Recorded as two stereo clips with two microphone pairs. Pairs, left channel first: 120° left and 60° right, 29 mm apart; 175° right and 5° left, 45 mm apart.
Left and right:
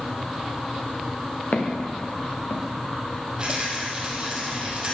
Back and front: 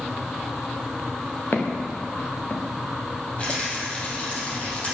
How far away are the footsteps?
About 2.5 m.